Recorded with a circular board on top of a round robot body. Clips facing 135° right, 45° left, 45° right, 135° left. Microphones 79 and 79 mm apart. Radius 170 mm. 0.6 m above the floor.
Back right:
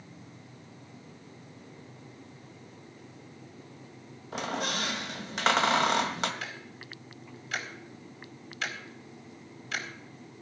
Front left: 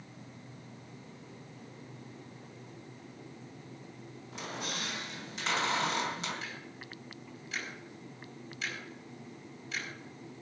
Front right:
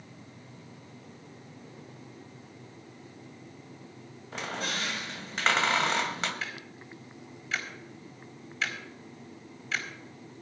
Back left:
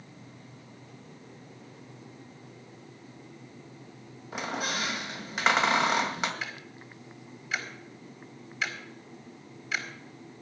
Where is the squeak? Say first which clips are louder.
Back right 8 dB, back left 2 dB; 145° right, 2.0 m.